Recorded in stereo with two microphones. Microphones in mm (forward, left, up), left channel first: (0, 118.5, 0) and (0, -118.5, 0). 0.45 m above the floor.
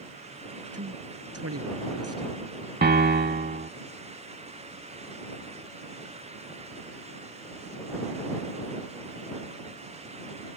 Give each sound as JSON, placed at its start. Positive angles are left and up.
{"t": 0.7, "sound": "a man speaking", "side_deg": -80}
{"t": 2.8, "sound": "a piano", "side_deg": -45}